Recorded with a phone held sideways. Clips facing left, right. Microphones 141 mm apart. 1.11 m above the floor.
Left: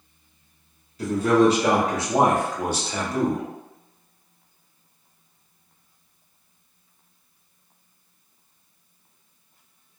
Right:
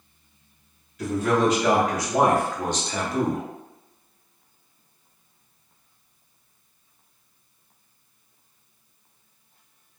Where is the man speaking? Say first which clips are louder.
Left 4 dB; 30° left (ahead or behind), 1.0 m; by 3.4 s 5° right (ahead or behind), 0.7 m.